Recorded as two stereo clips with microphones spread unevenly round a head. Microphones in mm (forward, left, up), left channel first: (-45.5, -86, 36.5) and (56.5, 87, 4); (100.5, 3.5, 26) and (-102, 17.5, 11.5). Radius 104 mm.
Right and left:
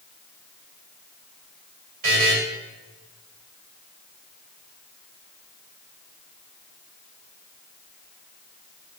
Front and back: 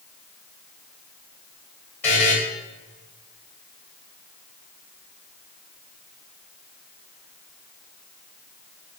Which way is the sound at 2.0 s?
70° left.